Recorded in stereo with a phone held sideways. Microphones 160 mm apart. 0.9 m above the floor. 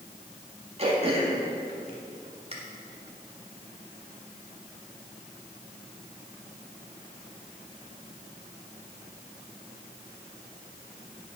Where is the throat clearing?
40° right (ahead or behind), 2 m.